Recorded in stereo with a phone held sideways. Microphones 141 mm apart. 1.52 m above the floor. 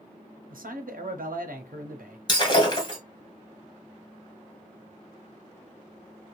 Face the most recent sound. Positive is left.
turn(degrees=30)  # may be behind; listen again after turning